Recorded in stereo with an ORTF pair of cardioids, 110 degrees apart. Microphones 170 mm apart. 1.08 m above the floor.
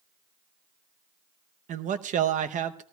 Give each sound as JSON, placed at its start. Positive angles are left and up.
{"t": 1.7, "sound": "a man speaking", "azimuth_deg": -50, "distance_m": 0.8}